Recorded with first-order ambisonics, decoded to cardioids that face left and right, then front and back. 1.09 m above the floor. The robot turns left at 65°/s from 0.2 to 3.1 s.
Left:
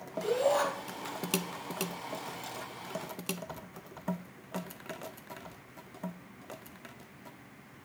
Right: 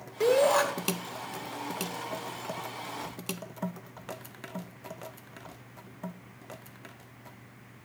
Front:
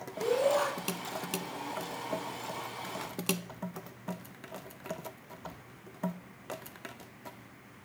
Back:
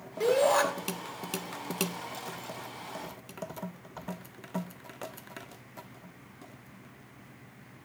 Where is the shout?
105° right, 3.5 m; by 0.6 s 135° right, 3.5 m.